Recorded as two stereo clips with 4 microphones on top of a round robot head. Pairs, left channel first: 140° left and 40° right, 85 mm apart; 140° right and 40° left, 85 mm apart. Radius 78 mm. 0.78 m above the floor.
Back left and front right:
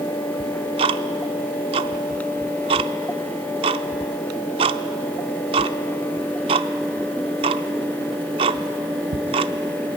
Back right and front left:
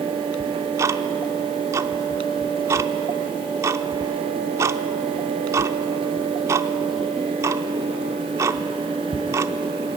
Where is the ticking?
20° right, 0.6 m.